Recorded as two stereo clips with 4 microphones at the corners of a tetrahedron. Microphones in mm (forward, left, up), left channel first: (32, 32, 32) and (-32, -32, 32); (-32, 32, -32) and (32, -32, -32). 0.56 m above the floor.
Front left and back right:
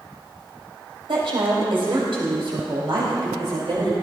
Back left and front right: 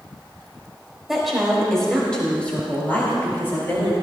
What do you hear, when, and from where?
1.1 s a woman speaking: 130° right, 4 m; by 3.9 s 165° right, 5 m